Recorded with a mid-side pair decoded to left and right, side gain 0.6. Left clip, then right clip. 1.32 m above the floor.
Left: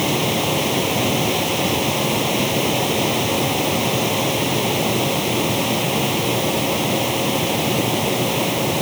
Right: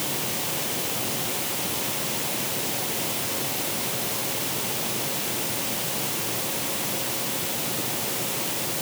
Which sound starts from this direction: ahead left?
A machine running, at 0.0 s.